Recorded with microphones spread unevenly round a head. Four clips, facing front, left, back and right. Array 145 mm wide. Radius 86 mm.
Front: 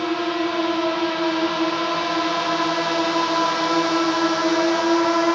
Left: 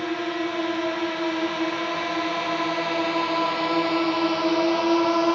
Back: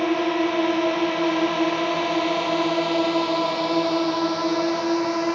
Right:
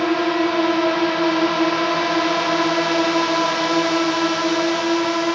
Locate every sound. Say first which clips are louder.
0.0 s a drone: right 8 dB, back 1 dB; 115° right; by 5.4 s 15° left